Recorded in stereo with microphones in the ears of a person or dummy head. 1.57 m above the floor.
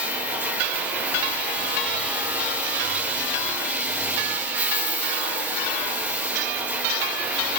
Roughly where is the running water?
Centre.